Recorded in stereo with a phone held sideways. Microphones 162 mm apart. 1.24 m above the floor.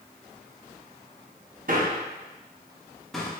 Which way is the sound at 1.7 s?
55° right (ahead or behind).